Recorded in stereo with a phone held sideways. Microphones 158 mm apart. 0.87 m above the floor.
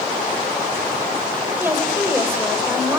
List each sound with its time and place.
1.6 s a woman speaking: 15° right (ahead or behind), 4 m